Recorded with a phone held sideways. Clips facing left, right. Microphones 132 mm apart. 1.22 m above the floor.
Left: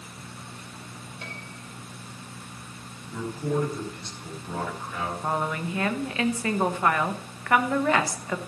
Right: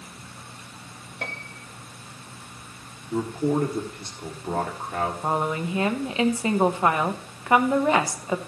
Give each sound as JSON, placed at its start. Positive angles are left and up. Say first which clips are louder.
{"t": 1.2, "sound": "a piano", "louder": "right 8 dB", "side_deg": -65, "distance_m": 0.8}
{"t": 3.1, "sound": "a man speaking", "louder": "right 4 dB", "side_deg": -50, "distance_m": 1.8}
{"t": 5.2, "sound": "a woman speaking", "louder": "even", "side_deg": -20, "distance_m": 0.9}